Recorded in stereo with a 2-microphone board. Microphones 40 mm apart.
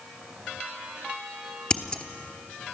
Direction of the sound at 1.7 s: 20° left (ahead or behind).